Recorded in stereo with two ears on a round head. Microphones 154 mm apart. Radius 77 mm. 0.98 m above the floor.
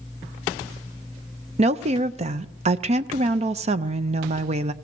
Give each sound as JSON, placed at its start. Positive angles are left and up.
{"t": 1.6, "sound": "a woman speaking", "side_deg": -40, "distance_m": 0.6}